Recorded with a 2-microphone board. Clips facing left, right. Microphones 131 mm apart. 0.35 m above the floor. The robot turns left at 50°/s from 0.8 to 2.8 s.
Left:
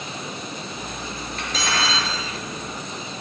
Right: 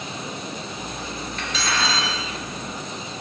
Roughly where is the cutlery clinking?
Behind left.